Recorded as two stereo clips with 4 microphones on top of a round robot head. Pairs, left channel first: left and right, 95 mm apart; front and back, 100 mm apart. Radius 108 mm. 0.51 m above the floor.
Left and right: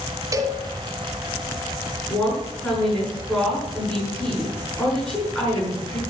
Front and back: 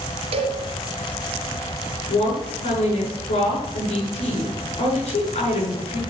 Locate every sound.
0.3 s a cowbell: 145° right, 1.6 m
2.1 s a woman speaking: 10° left, 8 m